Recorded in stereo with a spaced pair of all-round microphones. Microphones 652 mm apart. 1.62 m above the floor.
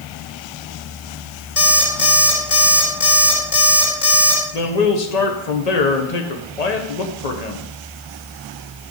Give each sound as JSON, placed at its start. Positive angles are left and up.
{"t": 1.6, "sound": "an alarm clock", "side_deg": 50, "distance_m": 3.0}
{"t": 4.5, "sound": "a man speaking", "side_deg": 75, "distance_m": 1.4}